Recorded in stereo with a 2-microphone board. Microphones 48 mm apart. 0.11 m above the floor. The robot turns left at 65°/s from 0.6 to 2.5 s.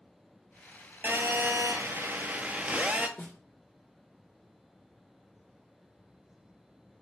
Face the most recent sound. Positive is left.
turn(degrees=30)  # may be behind; listen again after turning